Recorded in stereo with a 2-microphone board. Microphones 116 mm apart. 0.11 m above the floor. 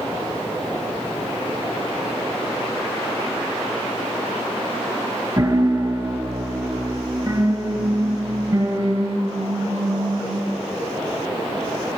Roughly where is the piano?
Right.